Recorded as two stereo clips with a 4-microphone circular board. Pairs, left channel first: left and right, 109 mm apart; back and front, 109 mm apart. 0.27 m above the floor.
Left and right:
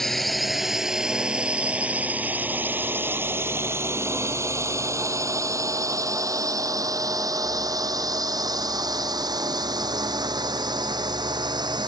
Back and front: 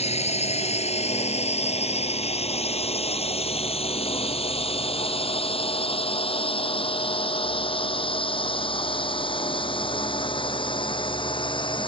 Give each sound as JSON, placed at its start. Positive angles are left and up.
{"t": 0.0, "sound": "a drone", "azimuth_deg": 180}